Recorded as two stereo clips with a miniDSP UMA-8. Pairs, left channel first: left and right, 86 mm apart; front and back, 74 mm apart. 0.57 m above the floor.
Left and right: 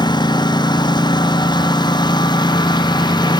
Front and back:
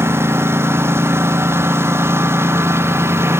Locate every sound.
0.0 s a lawn mower: 125° left